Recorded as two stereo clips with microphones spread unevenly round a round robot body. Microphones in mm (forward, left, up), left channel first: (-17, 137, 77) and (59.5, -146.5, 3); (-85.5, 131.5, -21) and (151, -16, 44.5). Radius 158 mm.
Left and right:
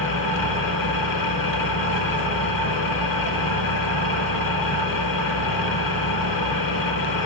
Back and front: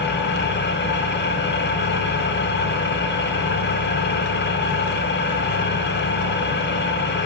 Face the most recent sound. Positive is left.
turn(degrees=90)